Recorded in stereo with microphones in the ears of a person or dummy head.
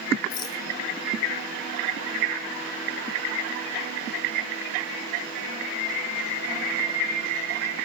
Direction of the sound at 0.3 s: 20° left (ahead or behind).